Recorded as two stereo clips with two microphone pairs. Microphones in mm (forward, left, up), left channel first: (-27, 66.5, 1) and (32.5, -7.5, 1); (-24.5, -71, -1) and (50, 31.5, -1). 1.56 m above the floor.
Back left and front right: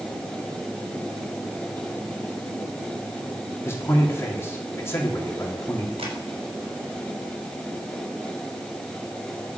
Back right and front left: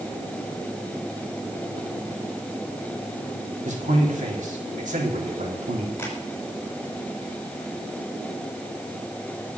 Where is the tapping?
55° right, 6.5 m.